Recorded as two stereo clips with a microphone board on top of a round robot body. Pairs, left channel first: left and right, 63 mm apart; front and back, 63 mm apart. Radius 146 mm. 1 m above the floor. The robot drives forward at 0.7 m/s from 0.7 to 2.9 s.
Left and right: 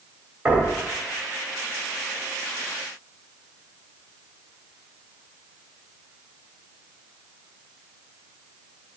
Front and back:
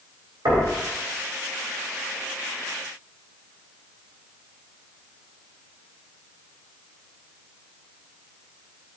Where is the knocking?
155° right, 3.5 m.